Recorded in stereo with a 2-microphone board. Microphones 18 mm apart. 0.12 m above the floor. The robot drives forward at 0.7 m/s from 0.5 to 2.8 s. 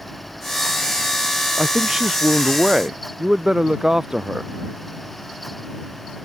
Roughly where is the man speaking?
Right.